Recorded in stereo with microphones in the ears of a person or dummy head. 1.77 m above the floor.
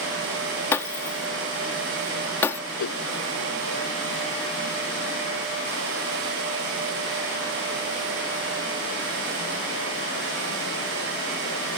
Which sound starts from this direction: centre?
Breaking glass, at 0.7 s.